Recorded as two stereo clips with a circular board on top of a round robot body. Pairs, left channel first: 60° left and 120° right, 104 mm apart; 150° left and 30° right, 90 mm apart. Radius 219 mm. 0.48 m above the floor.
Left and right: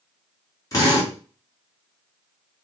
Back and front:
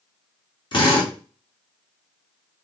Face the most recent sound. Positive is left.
turn(degrees=115)